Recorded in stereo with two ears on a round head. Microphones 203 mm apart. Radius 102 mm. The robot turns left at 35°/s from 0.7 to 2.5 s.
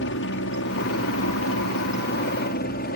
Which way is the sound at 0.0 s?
110° left.